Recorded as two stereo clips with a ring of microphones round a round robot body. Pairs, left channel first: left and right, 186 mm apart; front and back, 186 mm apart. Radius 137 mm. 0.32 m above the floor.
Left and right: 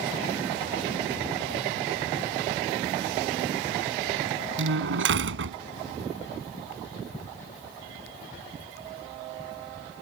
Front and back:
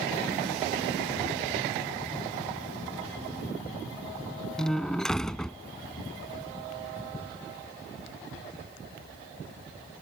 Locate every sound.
4.6 s a door slam: 90° right